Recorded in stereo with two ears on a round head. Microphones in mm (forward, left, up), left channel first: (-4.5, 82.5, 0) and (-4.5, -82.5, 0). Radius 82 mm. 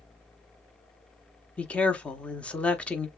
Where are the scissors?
I don't hear scissors.